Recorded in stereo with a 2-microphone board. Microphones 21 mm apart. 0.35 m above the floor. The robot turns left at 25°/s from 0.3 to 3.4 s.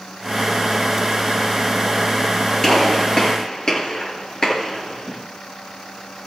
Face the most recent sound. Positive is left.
turn(degrees=40)  # may be behind; listen again after turning